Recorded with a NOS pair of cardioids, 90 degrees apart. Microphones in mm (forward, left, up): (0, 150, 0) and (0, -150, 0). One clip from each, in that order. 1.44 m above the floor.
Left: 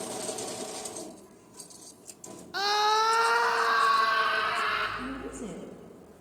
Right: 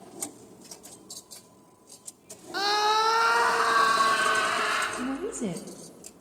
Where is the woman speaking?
55° right, 2.5 m.